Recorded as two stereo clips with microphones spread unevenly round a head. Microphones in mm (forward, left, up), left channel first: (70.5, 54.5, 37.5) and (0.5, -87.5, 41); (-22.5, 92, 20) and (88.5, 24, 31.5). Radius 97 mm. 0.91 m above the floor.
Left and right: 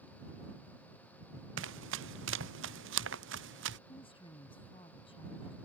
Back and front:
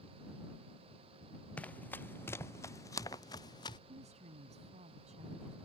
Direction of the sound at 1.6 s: 130° right.